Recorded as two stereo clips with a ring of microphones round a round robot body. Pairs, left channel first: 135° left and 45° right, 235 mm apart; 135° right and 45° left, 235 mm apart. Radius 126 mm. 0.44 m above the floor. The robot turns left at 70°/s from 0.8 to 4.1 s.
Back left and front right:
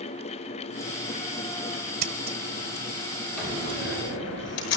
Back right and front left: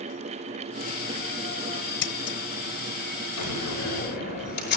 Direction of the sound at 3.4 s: 135° right.